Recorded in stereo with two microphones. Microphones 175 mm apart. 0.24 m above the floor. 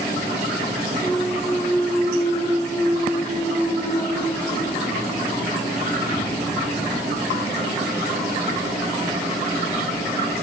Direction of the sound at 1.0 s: 30° left (ahead or behind).